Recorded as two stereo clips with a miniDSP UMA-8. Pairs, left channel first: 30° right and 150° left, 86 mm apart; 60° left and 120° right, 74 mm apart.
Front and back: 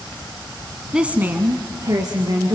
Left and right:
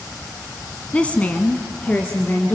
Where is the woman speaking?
85° left, 1.1 m; by 2.5 s 125° left, 2.5 m.